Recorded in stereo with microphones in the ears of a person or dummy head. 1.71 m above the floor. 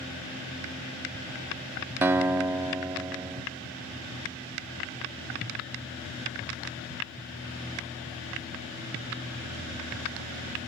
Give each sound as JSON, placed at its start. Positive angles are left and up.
{"t": 2.0, "sound": "a guitar", "side_deg": -15, "distance_m": 0.5}